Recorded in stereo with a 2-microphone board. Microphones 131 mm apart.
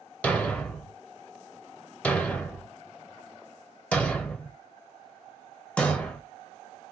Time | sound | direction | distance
0.2 | a thud | 10° left (ahead or behind) | 0.6 m